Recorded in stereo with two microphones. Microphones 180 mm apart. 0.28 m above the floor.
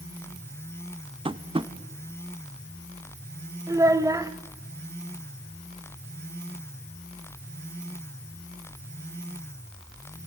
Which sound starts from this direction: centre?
A child speaking, at 3.7 s.